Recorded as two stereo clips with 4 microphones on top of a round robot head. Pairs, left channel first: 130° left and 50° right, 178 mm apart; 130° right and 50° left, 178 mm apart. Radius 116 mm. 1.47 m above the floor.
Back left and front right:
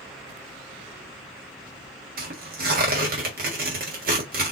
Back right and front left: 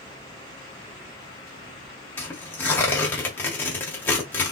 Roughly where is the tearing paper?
Ahead right.